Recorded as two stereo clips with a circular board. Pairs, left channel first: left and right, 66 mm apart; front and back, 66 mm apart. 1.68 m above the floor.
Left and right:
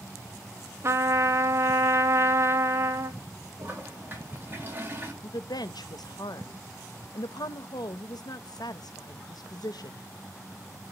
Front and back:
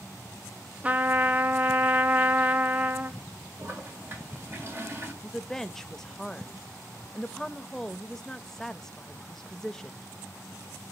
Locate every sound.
0.8 s a trumpet: 115° right, 0.5 m
3.6 s a toilet flushing: 140° right, 1.9 m
5.2 s a woman speaking: 85° left, 0.5 m